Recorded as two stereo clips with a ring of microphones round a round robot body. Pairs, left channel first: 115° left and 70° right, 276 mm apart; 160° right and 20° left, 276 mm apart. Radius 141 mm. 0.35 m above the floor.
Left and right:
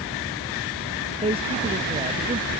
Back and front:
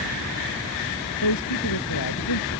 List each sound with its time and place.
1.2 s a man speaking: 135° right